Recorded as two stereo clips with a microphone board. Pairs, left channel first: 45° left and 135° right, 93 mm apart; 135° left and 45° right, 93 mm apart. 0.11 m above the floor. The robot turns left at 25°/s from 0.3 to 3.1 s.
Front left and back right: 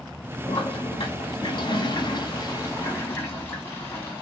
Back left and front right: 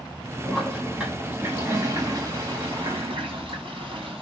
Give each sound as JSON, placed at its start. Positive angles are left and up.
{"t": 0.5, "sound": "a toilet flushing", "azimuth_deg": 45, "distance_m": 4.5}